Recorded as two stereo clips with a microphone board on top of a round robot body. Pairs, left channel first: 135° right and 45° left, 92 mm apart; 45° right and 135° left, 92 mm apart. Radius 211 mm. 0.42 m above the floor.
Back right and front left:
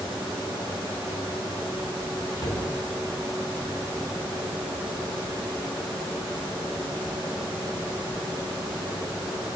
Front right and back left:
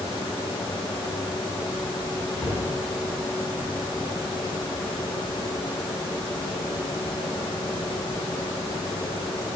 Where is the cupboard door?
125° right, 1.6 m.